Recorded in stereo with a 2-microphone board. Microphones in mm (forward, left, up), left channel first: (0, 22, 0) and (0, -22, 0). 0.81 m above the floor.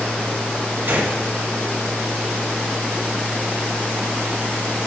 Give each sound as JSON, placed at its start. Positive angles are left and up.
{"t": 0.9, "sound": "a gunshot", "side_deg": -45, "distance_m": 1.6}